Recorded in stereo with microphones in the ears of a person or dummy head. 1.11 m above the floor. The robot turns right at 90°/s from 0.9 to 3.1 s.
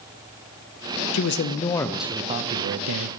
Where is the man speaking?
105° left, 0.6 m; by 3.1 s 80° right, 0.6 m.